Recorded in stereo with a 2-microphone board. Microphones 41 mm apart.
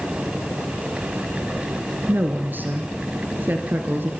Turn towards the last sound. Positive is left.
turn(degrees=-50)  # may be behind; listen again after turning